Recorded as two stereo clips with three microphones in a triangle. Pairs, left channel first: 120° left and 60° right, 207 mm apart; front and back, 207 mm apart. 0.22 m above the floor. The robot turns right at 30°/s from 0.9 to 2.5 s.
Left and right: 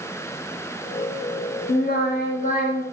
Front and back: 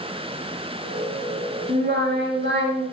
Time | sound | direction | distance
1.7 | singing | 145° left | 0.9 m